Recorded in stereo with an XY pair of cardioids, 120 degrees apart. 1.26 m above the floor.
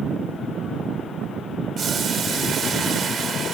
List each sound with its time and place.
1.8 s boiling: 50° right, 1.7 m